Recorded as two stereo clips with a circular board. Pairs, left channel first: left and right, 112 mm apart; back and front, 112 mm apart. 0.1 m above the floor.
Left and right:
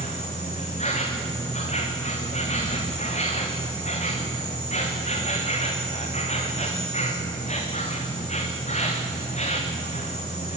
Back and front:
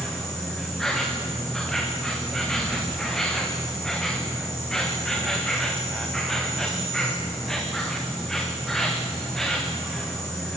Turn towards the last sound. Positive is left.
turn(degrees=95)